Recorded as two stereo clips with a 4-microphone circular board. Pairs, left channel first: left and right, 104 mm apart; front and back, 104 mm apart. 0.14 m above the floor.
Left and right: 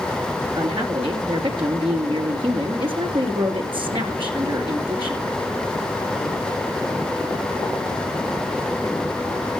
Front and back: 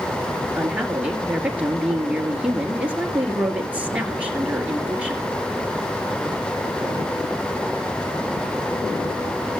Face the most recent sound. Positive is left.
turn(degrees=-105)